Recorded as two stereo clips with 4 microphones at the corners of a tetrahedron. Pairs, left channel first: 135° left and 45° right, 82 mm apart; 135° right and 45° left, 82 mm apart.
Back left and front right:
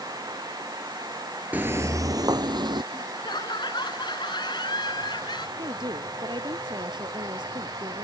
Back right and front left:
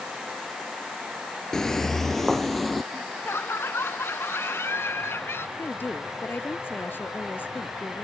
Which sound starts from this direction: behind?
Laughter, at 2.9 s.